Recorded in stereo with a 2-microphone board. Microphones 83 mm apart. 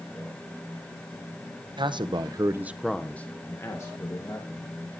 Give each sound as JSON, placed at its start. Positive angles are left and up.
{"t": 1.8, "sound": "a man speaking", "side_deg": -75, "distance_m": 0.9}